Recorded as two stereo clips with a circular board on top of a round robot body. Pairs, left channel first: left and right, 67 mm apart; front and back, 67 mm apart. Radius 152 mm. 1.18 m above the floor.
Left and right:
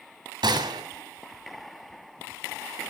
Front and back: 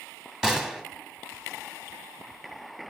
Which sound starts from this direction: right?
A gunshot, at 0.4 s.